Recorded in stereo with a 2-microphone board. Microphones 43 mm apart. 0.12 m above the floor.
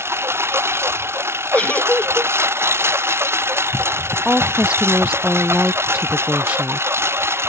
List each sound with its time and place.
0.0 s a lawn mower: 75° right (ahead or behind)
1.5 s a giggle: 35° left (ahead or behind)
4.2 s a woman speaking: 25° right (ahead or behind)